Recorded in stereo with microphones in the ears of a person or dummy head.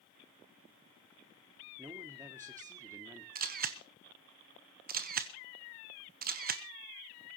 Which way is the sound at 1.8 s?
15° right (ahead or behind).